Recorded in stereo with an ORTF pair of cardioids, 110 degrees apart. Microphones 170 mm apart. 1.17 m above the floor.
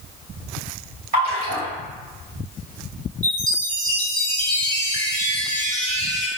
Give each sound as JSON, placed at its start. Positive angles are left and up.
{"t": 1.1, "sound": "a splash", "azimuth_deg": -50, "distance_m": 1.5}
{"t": 3.2, "sound": "a chime", "azimuth_deg": -25, "distance_m": 0.8}